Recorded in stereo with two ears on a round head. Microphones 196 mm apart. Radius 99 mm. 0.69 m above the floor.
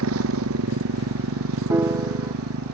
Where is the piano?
10° right (ahead or behind).